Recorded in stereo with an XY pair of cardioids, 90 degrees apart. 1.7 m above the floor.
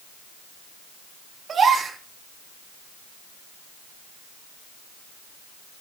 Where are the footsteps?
I don't hear footsteps.